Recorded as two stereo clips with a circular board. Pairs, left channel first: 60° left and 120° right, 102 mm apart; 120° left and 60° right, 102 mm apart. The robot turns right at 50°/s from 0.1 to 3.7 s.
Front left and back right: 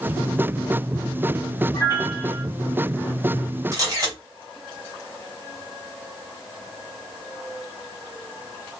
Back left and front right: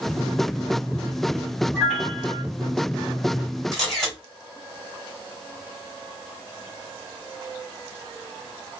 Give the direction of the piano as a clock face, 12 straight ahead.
11 o'clock.